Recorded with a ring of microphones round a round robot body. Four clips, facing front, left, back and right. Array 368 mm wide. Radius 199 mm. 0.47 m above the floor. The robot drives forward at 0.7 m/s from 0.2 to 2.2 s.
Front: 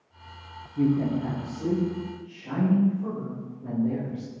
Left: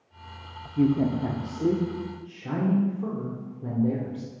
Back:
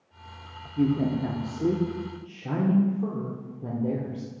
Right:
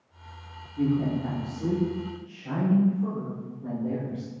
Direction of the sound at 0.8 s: 90° left.